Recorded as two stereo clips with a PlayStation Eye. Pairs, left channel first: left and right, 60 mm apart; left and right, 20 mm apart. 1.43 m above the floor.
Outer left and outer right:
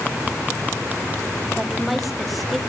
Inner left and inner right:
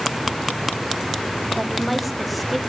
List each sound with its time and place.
1.6 s a woman speaking: centre (ahead or behind), 1.4 m